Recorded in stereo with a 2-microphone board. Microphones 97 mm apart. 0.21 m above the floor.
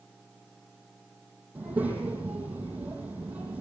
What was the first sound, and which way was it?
A child speaking, 15° right (ahead or behind).